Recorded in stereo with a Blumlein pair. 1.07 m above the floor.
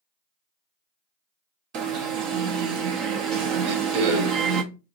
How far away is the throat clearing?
About 0.6 m.